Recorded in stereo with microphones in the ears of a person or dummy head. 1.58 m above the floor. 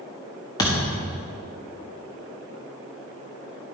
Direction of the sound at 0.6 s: 20° left (ahead or behind).